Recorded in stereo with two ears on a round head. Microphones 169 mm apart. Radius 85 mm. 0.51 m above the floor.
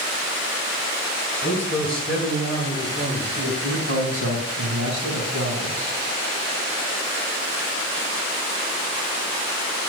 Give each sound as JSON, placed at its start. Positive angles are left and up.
{"t": 1.4, "sound": "a man speaking", "side_deg": 10, "distance_m": 6.5}
{"t": 3.6, "sound": "a man speaking", "side_deg": -65, "distance_m": 3.5}